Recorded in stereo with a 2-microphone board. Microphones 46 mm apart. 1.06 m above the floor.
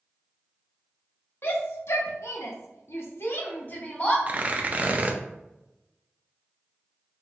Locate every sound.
1.4 s a shout: 55° left (ahead or behind), 1.2 m; by 4.2 s 30° left (ahead or behind), 1.2 m
4.3 s tearing paper: 35° right (ahead or behind), 0.5 m